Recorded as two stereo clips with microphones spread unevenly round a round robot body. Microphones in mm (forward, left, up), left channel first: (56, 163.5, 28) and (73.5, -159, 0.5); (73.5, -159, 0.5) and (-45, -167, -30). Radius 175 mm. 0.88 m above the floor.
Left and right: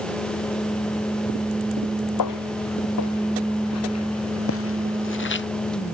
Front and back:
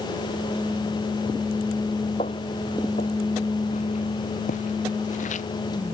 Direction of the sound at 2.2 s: 70° left.